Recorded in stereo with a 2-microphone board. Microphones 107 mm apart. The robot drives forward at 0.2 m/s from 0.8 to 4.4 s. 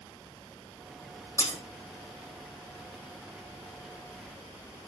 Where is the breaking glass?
30° left (ahead or behind), 4 m.